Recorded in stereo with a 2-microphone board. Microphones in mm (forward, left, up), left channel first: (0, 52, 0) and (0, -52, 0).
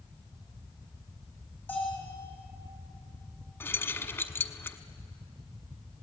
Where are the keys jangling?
25° left (ahead or behind), 1.1 m.